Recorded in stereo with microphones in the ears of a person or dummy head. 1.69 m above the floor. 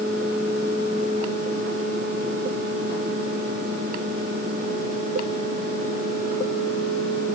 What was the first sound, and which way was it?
Only background noise.